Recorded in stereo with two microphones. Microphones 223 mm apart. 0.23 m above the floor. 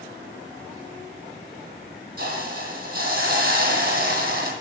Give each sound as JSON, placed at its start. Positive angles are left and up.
{"t": 2.2, "sound": "a hiss", "side_deg": -50, "distance_m": 1.6}